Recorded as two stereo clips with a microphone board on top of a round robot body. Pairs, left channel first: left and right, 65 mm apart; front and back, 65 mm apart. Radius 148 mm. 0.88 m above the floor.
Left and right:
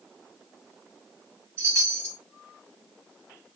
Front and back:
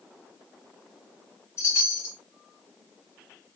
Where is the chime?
45° right, 1.2 m.